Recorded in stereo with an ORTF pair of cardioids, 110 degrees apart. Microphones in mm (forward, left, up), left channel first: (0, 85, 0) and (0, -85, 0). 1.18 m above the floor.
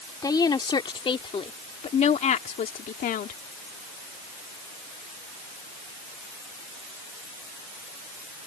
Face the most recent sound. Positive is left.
turn(degrees=60)